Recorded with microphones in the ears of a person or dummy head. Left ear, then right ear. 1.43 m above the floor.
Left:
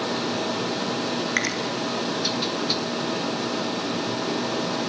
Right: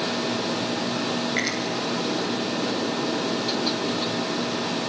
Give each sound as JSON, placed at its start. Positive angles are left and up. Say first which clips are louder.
{"t": 1.4, "sound": "a finger snap", "louder": "left 2 dB", "side_deg": 40, "distance_m": 4.0}